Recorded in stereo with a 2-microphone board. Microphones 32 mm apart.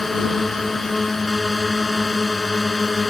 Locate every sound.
0.0 s a drone: 10° left (ahead or behind)